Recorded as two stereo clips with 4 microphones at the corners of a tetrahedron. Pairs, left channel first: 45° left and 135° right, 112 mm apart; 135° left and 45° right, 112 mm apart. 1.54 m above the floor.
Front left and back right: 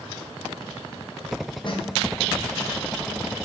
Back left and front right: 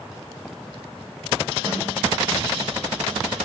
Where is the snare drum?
5° left, 0.9 m.